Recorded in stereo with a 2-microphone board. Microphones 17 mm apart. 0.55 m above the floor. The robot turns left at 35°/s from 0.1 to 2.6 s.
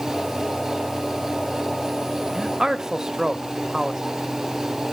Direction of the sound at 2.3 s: 30° right (ahead or behind).